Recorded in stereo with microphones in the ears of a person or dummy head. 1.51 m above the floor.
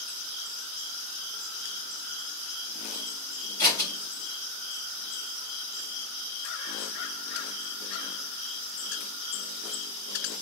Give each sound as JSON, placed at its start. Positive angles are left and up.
{"t": 3.6, "sound": "scissors", "side_deg": 15, "distance_m": 1.4}